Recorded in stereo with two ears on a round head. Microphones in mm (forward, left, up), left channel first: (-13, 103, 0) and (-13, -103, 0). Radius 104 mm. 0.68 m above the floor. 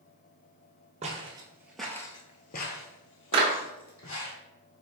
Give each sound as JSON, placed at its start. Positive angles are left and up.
{"t": 1.0, "sound": "footsteps", "side_deg": -30, "distance_m": 1.0}
{"t": 3.3, "sound": "a clap", "side_deg": -25, "distance_m": 1.0}